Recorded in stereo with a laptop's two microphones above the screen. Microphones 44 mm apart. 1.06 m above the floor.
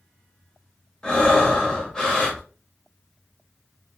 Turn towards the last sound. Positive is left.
turn(degrees=20)  # may be behind; listen again after turning